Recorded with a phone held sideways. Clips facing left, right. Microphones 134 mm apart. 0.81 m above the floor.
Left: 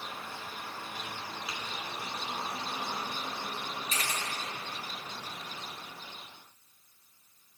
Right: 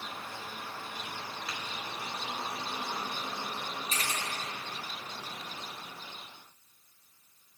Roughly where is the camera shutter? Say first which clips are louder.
Even; right.